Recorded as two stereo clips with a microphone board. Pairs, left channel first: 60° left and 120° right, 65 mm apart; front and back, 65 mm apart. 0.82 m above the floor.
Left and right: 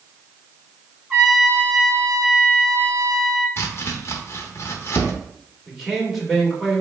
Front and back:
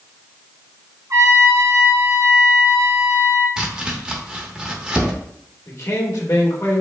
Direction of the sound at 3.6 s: 105° left.